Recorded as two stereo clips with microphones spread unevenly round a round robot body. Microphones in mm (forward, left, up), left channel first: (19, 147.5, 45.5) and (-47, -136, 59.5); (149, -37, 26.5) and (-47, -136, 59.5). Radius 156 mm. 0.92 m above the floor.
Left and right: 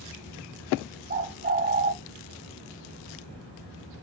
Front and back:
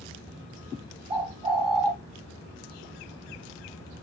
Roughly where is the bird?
Behind right.